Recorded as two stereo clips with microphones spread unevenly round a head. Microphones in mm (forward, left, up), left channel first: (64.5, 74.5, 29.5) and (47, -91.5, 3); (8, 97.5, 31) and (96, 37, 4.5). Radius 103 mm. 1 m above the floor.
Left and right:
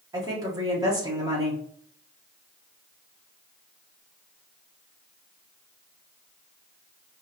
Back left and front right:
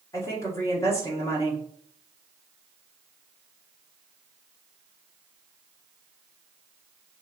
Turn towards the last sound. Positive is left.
turn(degrees=-145)